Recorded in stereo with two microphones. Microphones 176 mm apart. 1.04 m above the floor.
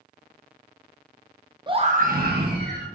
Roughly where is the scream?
Right.